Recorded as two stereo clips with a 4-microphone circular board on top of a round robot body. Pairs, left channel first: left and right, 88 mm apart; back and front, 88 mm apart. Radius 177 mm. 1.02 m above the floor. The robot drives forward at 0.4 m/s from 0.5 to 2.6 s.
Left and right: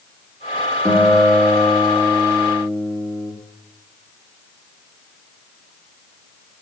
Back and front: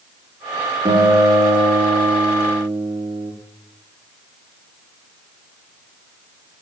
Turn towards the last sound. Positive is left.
turn(degrees=20)